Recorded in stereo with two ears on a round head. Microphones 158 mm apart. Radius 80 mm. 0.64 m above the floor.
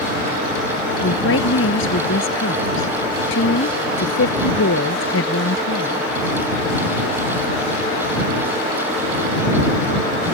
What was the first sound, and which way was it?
A woman speaking, 85° left.